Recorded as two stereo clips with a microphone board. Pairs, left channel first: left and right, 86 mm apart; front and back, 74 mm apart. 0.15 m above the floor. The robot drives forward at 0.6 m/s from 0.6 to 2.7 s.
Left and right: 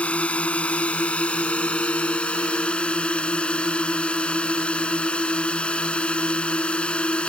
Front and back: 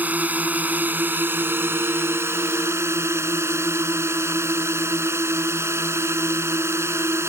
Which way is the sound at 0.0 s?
145° left.